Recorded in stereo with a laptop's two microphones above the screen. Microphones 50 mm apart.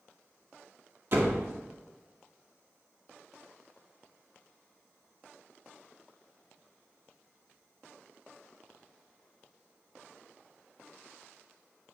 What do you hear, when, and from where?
1.1 s a door slam: 50° right (ahead or behind), 1.8 m